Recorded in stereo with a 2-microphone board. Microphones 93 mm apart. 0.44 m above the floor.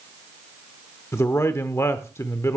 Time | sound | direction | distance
1.1 | a man speaking | 30° left (ahead or behind) | 0.8 m